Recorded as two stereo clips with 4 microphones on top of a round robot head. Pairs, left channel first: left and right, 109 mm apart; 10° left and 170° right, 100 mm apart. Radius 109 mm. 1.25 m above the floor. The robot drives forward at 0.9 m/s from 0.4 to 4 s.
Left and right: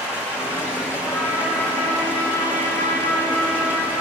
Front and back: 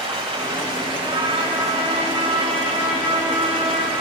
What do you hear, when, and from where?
0.0 s running water: 160° left, 7 m; by 4.0 s 165° left, 10 m
1.0 s a trumpet: 150° left, 8 m; by 4.0 s 155° left, 10.5 m